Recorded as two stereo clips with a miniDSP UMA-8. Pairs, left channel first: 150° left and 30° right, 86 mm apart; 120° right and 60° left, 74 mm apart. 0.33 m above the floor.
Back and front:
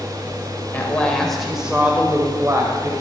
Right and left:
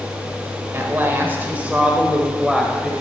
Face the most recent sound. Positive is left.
turn(degrees=-30)